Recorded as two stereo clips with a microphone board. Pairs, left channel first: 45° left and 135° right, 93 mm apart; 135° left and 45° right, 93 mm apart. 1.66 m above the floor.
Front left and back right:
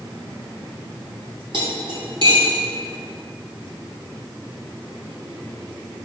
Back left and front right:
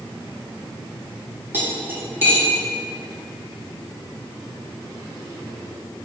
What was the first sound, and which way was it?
Cutlery clinking, 110° right.